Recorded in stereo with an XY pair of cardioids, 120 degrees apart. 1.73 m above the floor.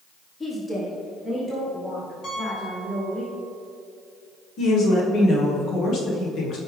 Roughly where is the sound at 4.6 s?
Ahead left.